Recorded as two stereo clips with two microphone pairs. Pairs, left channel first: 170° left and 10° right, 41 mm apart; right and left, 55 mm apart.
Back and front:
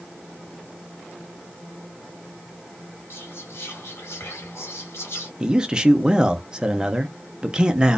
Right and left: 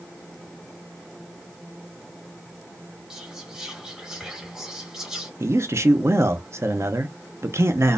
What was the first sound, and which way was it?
Whispering, 170° left.